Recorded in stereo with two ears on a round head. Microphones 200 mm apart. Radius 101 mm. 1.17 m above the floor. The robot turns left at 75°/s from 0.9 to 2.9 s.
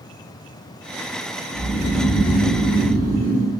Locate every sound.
1.5 s snoring: straight ahead, 1.3 m; by 3.5 s 105° right, 1.3 m